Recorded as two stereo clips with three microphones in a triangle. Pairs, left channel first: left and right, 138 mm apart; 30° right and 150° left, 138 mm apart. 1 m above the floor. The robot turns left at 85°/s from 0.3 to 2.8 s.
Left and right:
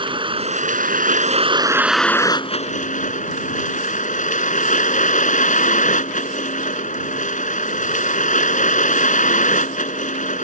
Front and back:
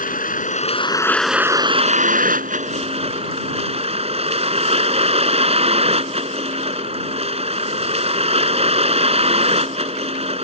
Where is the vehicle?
40° right; by 10.4 s 110° left.